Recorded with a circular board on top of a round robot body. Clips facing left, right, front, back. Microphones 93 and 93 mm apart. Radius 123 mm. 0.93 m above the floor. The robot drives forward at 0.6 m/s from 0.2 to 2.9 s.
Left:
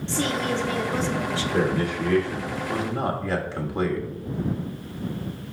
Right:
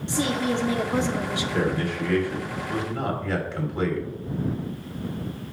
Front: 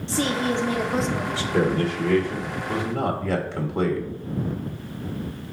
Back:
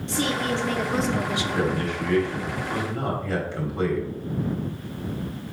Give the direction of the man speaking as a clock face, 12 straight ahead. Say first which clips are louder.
Left 2 dB, front 6 dB; 11 o'clock.